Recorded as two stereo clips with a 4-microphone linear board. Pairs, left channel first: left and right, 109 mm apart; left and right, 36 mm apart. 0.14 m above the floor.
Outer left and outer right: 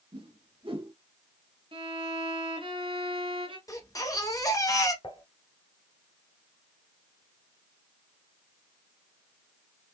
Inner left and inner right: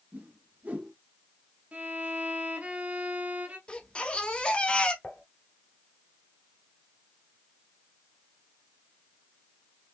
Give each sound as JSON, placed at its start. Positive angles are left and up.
{"t": 0.1, "sound": "a whoosh", "side_deg": -55, "distance_m": 1.8}
{"t": 1.7, "sound": "a violin", "side_deg": -55, "distance_m": 1.4}
{"t": 3.7, "sound": "a baby crying", "side_deg": 30, "distance_m": 1.5}
{"t": 5.0, "sound": "dishes clattering", "side_deg": 45, "distance_m": 1.2}